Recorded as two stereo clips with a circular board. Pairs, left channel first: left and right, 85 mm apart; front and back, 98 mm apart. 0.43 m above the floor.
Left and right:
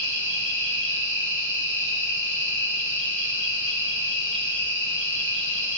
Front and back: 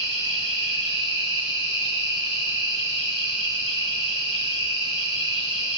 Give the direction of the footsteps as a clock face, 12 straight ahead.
I don't hear footsteps.